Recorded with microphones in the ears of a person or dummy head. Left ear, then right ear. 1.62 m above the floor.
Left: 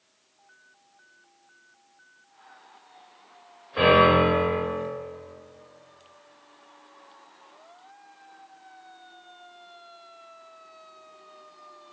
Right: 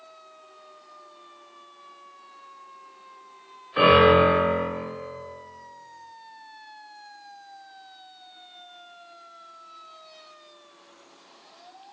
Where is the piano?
45° right (ahead or behind), 1.5 m.